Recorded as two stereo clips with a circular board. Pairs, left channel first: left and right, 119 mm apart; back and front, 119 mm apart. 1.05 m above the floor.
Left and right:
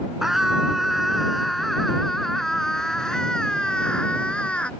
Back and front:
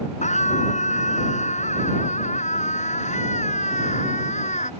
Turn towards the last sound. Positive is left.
turn(degrees=170)